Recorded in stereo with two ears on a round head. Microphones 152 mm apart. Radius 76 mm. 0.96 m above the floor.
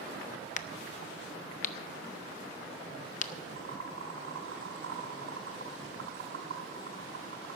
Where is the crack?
45° left (ahead or behind), 0.6 m.